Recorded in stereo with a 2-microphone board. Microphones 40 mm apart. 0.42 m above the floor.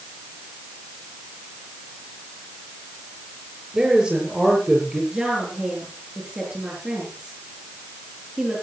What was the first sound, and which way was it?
A man speaking, 20° right (ahead or behind).